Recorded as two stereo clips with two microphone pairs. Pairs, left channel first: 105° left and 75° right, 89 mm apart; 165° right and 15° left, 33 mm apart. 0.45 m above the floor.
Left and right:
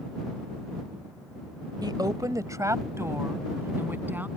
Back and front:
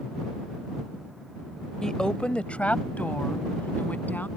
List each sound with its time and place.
1.8 s a woman speaking: 100° right; by 4.3 s 145° right